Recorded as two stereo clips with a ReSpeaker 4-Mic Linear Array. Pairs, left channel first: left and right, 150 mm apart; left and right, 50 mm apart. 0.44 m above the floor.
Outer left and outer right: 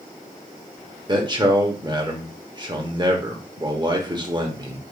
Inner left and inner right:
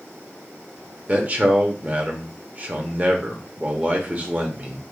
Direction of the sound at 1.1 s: 30° right (ahead or behind).